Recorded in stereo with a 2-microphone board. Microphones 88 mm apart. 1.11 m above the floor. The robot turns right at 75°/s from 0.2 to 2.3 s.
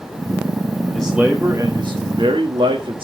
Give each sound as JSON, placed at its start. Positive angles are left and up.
{"t": 0.9, "sound": "a man speaking", "azimuth_deg": 165, "distance_m": 1.5}